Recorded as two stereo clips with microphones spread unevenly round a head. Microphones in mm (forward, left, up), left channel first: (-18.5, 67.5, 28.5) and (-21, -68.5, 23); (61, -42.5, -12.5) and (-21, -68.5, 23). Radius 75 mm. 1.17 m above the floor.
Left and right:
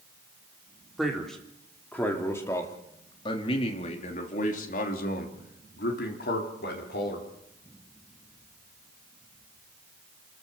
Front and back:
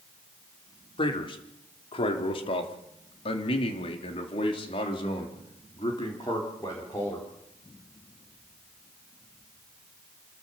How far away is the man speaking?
About 4 m.